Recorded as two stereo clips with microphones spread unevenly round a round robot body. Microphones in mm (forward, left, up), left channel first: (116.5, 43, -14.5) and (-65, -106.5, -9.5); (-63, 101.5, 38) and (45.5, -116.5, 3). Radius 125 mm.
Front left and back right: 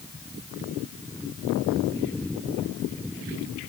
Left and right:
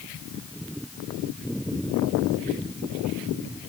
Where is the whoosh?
I don't hear a whoosh.